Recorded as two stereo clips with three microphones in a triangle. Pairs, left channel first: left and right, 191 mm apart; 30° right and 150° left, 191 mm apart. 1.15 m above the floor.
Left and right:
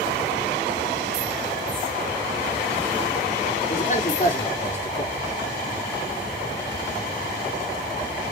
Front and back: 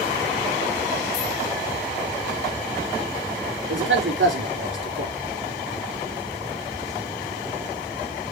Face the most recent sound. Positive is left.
turn(degrees=140)